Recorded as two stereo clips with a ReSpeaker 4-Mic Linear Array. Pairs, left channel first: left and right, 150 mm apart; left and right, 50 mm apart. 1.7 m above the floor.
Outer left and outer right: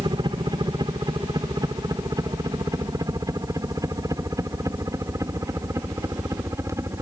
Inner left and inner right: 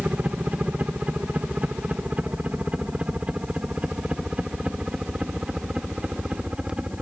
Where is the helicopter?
30° right (ahead or behind); by 7.0 s 20° right (ahead or behind).